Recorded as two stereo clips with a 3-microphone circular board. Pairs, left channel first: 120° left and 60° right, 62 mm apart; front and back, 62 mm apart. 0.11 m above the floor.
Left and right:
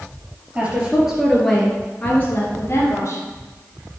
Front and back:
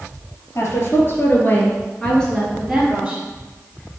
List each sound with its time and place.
0.6 s a woman speaking: 5° left, 2.5 m; by 3.2 s 105° left, 2.5 m